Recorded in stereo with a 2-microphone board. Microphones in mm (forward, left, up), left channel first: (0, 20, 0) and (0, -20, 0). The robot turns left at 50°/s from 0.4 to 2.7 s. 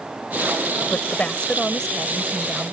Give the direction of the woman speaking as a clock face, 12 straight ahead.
10 o'clock.